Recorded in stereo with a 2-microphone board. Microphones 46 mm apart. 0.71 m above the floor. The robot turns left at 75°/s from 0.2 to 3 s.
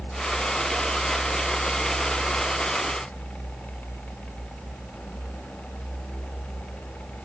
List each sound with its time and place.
Only background noise.